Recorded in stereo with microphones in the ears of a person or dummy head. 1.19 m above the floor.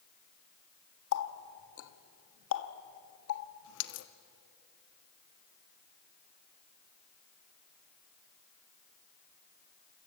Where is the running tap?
65° left (ahead or behind), 1.5 m.